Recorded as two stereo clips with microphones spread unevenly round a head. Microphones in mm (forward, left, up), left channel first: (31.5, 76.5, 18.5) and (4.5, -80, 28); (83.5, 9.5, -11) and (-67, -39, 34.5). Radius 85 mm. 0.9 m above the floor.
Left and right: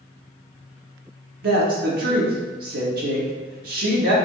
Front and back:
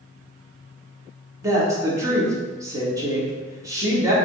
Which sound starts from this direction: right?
A woman speaking, at 1.4 s.